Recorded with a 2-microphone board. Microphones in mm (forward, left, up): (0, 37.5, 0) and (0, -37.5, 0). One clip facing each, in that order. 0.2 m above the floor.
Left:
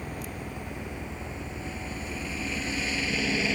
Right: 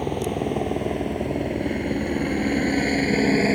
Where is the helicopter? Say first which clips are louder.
Right 13 dB; 75° right (ahead or behind); by 3.6 s 35° right (ahead or behind).